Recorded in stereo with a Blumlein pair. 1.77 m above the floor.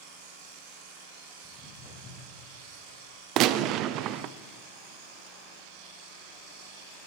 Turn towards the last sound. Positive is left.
turn(degrees=-40)